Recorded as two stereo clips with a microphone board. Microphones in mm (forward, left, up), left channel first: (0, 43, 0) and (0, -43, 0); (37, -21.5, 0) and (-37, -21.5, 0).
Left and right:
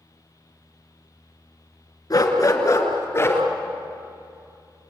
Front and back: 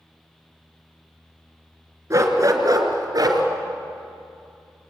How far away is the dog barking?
About 2.5 m.